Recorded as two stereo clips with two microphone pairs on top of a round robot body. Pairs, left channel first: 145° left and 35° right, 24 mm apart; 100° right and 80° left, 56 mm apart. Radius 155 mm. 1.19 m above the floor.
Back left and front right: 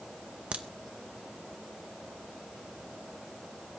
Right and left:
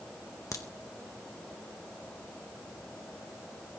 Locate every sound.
0.5 s a crack: 75° right, 0.8 m